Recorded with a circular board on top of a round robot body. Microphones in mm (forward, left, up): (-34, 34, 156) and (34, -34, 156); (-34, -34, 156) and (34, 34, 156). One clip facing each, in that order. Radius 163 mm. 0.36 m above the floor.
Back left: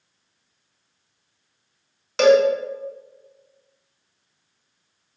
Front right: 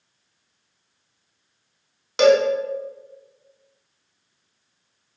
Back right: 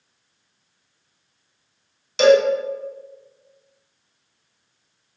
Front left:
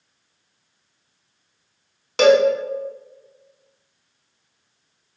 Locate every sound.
2.2 s a cowbell: 30° left, 1.2 m